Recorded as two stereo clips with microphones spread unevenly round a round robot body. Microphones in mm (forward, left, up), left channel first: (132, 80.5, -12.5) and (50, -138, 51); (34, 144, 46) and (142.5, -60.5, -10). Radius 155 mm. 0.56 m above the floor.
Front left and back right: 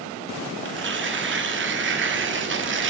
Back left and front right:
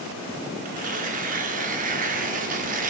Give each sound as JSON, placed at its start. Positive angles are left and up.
{"t": 0.7, "sound": "tearing paper", "azimuth_deg": -75, "distance_m": 1.2}